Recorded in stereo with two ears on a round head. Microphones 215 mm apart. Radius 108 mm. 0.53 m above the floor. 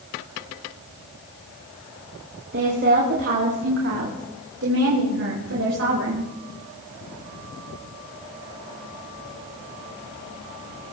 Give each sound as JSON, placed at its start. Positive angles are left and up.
{"t": 2.5, "sound": "a woman speaking", "side_deg": -45, "distance_m": 4.0}